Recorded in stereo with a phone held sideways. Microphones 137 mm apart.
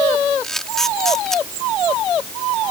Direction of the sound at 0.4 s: 5° left (ahead or behind).